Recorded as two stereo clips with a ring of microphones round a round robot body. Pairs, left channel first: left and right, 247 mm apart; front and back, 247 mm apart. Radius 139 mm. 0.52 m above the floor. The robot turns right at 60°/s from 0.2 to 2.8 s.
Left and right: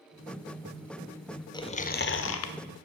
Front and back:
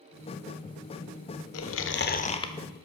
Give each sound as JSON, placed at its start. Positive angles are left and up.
{"t": 1.5, "sound": "chewing", "azimuth_deg": 15, "distance_m": 1.0}